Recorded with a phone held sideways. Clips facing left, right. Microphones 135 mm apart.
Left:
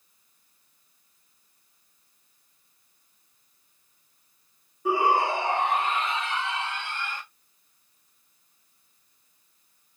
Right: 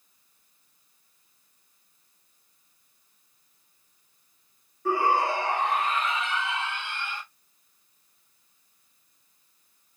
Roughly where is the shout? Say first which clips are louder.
Left 1 dB; centre.